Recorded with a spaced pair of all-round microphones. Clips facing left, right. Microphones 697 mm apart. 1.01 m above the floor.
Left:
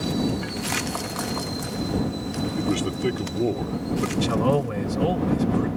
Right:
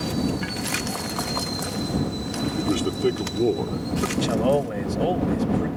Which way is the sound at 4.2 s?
35° left (ahead or behind).